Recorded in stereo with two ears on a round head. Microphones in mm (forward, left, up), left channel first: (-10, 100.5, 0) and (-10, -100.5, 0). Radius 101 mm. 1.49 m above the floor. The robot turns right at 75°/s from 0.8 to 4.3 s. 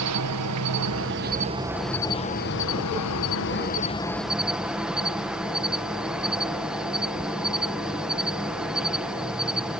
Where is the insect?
80° right; by 9.8 s 175° right.